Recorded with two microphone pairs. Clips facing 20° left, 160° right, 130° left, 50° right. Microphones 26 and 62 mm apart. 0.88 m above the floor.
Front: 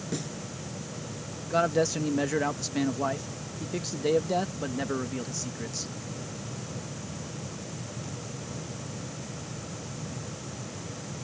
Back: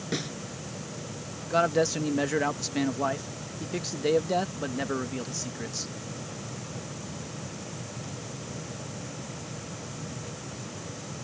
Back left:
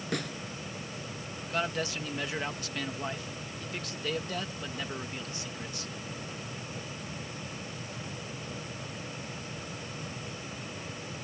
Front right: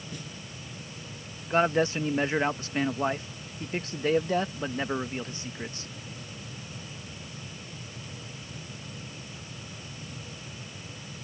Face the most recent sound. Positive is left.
turn(degrees=-85)